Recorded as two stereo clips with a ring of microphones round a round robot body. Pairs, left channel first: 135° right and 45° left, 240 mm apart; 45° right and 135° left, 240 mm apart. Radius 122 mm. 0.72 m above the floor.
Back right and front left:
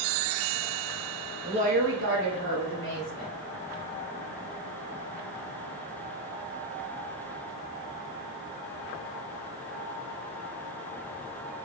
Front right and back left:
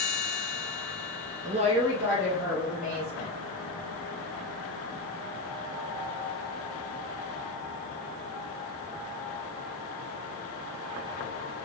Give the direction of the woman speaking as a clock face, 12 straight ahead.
8 o'clock.